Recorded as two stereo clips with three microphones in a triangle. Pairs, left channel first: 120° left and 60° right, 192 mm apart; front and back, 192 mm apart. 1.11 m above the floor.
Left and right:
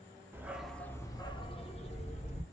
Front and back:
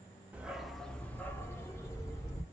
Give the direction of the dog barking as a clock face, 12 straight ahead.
4 o'clock.